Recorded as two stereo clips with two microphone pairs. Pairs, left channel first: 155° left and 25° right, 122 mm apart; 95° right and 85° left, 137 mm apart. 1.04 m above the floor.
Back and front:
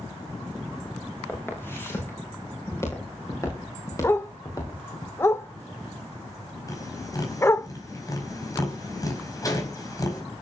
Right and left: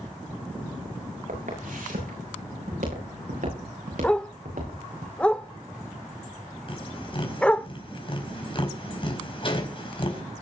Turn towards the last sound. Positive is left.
turn(degrees=-145)